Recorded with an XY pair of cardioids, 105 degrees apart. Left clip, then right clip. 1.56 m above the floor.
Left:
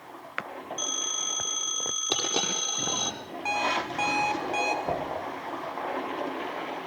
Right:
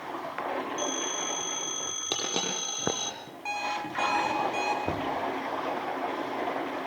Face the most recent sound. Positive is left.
turn(degrees=-40)